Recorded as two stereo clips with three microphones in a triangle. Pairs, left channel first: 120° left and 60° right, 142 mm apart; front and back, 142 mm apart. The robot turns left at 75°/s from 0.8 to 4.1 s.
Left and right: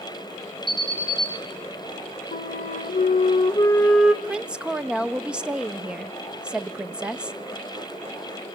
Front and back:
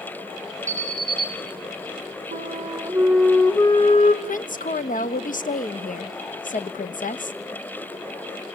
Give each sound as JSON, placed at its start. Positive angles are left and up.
{"t": 0.7, "sound": "an alarm", "azimuth_deg": -150, "distance_m": 4.0}
{"t": 2.3, "sound": "a flute", "azimuth_deg": 160, "distance_m": 1.7}
{"t": 4.2, "sound": "a woman speaking", "azimuth_deg": 25, "distance_m": 1.0}